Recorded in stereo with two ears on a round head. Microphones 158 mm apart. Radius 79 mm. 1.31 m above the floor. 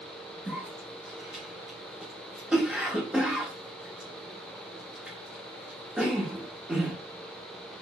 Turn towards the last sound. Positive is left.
turn(degrees=-5)  # may be behind; listen again after turning